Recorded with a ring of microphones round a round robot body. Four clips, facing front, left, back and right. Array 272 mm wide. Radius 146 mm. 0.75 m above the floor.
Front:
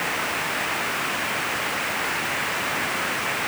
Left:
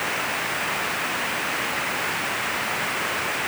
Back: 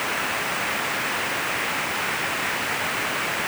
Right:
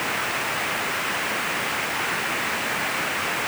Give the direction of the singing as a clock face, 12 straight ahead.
I don't hear singing.